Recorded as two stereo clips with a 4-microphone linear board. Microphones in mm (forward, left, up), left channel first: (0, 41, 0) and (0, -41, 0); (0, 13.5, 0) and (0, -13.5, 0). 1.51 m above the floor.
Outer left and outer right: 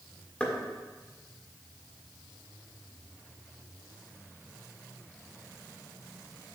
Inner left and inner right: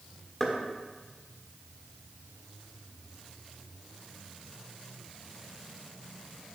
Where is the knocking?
15° left (ahead or behind), 1.5 m.